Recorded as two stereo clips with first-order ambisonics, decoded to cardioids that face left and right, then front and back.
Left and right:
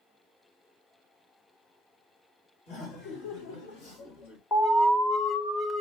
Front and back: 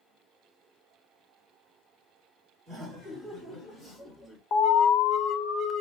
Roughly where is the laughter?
Behind left.